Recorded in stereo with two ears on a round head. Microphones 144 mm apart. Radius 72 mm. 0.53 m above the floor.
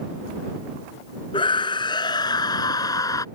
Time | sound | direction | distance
1.3 | a scream | 30° left (ahead or behind) | ?